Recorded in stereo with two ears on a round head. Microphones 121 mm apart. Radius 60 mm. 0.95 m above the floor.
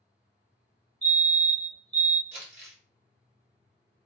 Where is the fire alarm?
10° left (ahead or behind), 1.3 m.